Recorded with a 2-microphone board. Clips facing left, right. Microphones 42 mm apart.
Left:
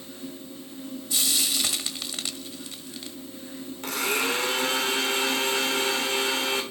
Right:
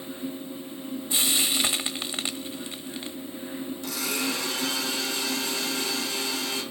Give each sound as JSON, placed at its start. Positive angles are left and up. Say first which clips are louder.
{"t": 1.1, "sound": "frying", "louder": "right 2 dB", "side_deg": -25, "distance_m": 0.8}
{"t": 3.8, "sound": "a blender", "louder": "left 5 dB", "side_deg": 50, "distance_m": 2.5}